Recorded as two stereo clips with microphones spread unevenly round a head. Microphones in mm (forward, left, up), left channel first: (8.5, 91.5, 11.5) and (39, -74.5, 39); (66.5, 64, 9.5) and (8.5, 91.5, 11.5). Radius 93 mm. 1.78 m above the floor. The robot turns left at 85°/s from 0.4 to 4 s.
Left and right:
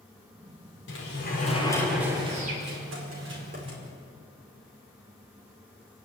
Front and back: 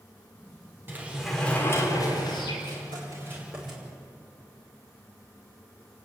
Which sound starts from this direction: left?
A sliding door, at 0.9 s.